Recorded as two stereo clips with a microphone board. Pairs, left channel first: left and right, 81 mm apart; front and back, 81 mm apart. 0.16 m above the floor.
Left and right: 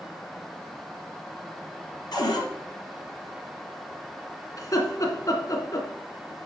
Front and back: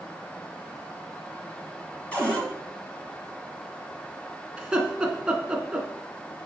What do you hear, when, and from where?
2.1 s a cupboard door: 70° left, 3 m
4.6 s laughter: 105° left, 2.5 m